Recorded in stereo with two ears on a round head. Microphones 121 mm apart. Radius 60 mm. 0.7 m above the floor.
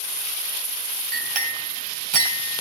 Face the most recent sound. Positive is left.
turn(degrees=-60)  # may be behind; listen again after turning